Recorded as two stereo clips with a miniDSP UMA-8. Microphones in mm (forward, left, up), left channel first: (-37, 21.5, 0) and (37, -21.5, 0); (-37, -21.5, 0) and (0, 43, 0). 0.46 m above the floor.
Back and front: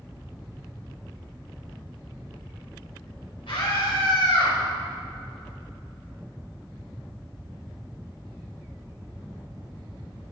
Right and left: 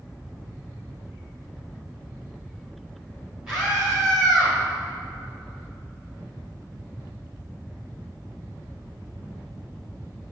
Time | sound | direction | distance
3.5 | a scream | 135° left | 2.5 m